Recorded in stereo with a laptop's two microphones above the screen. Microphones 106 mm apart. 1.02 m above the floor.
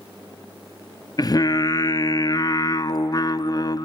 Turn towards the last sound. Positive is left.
turn(degrees=40)  # may be behind; listen again after turning